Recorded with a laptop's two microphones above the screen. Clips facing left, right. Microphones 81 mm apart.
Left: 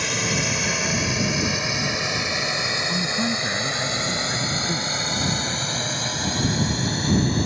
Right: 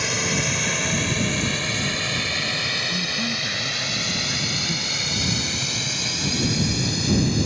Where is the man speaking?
30° left (ahead or behind).